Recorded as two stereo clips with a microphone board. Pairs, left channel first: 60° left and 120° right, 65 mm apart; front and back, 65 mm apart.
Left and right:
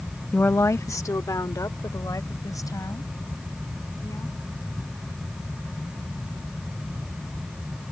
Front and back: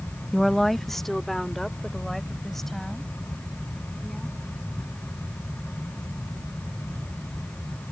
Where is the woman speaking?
80° left; by 4.4 s 85° left.